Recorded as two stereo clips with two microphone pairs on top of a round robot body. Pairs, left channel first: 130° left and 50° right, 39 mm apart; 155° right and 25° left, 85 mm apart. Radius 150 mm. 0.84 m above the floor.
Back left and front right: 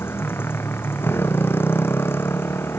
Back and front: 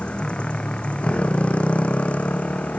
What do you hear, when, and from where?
0.0 s a motorcycle: 125° left; by 2.8 s 130° left